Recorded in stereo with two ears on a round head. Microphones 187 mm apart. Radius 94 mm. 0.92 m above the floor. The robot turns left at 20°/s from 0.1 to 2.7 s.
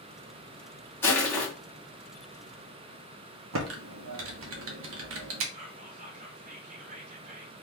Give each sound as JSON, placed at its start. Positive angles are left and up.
{"t": 1.0, "sound": "crushing", "side_deg": 10, "distance_m": 2.0}
{"t": 3.5, "sound": "typing on a keyboard", "side_deg": -75, "distance_m": 1.0}
{"t": 5.5, "sound": "whispering", "side_deg": -35, "distance_m": 1.1}